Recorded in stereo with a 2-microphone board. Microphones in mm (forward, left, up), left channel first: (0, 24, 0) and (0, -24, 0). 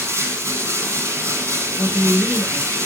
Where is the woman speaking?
30° left (ahead or behind), 3 m.